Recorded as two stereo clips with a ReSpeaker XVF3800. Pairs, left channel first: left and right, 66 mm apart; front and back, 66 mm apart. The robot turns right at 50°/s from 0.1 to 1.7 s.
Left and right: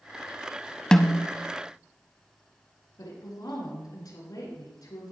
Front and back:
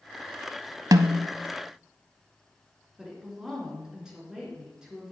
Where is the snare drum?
165° left, 0.6 m; by 1.3 s 175° right, 0.6 m.